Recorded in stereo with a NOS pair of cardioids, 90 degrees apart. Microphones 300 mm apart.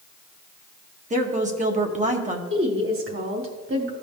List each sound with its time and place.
1.1 s a woman speaking: 25° right, 1.6 m
2.5 s a woman speaking: 45° right, 2.5 m